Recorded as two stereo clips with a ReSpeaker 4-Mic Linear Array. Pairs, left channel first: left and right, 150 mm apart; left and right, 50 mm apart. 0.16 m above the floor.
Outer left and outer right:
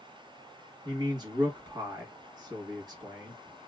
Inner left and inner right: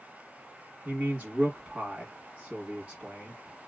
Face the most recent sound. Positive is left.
turn(degrees=-30)  # may be behind; listen again after turning